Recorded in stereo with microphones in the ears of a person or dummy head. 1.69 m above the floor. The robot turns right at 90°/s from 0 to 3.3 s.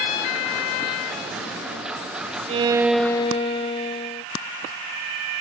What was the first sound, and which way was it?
A violin, 45° right.